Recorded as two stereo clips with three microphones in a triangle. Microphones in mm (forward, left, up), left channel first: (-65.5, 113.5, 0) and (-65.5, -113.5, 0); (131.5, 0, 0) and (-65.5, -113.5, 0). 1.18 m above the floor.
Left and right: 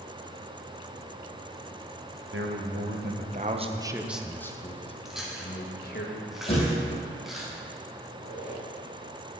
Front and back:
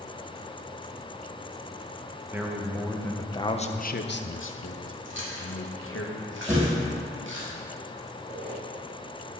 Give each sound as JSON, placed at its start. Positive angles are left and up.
{"t": 2.3, "sound": "a man speaking", "azimuth_deg": -70, "distance_m": 1.1}
{"t": 5.0, "sound": "chewing", "azimuth_deg": 180, "distance_m": 2.0}
{"t": 6.5, "sound": "a thud", "azimuth_deg": 155, "distance_m": 4.0}
{"t": 8.1, "sound": "a squeak", "azimuth_deg": -70, "distance_m": 3.5}